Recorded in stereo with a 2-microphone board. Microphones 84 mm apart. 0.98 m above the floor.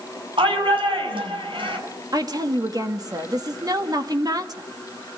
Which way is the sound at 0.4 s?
85° right.